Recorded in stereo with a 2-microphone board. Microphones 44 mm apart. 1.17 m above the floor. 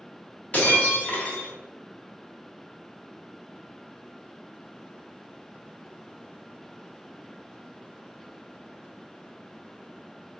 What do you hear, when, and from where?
0.5 s breaking glass: 35° left (ahead or behind), 1.4 m